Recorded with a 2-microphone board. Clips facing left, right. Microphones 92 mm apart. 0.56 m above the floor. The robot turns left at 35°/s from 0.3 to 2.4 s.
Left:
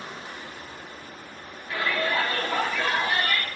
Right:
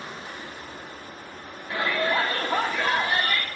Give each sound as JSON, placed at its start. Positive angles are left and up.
{"t": 1.7, "sound": "a shout", "side_deg": -25, "distance_m": 1.2}